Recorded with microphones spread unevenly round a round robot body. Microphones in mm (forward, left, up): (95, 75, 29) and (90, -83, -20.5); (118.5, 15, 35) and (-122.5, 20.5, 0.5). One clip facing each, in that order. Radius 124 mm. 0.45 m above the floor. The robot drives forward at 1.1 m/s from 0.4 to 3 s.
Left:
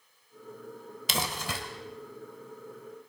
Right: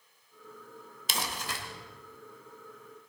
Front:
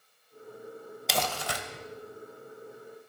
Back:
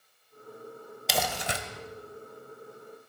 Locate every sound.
1.1 s crumpling: 90° left, 1.2 m; by 1.6 s 120° left, 1.4 m